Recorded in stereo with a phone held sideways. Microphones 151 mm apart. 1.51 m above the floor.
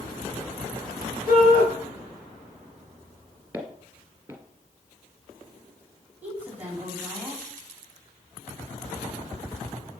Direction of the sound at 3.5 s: 10° right (ahead or behind).